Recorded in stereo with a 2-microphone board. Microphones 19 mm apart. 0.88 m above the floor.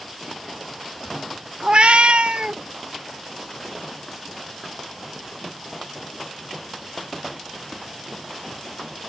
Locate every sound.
1.6 s a cat meowing: 40° right (ahead or behind); by 2.6 s 60° right (ahead or behind)